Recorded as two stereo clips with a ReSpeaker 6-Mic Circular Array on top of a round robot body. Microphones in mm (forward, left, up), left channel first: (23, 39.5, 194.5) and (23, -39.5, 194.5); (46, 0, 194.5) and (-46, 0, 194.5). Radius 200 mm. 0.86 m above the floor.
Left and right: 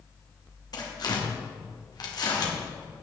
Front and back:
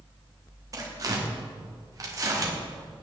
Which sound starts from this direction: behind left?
Tearing paper, at 0.7 s.